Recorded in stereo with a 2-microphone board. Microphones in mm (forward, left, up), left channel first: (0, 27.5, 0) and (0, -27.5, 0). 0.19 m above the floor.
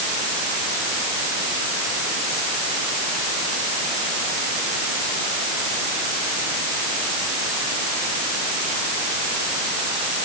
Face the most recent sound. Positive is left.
No sound to turn to.